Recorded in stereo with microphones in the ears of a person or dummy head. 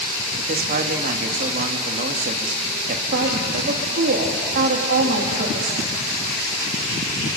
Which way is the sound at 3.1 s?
45° right (ahead or behind).